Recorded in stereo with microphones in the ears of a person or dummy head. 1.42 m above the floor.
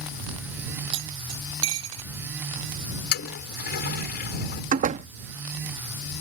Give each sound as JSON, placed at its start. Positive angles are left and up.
{"t": 0.9, "sound": "cutlery clinking", "side_deg": -85}
{"t": 3.1, "sound": "a toilet flushing", "side_deg": 50}
{"t": 4.7, "sound": "a door slam", "side_deg": -45}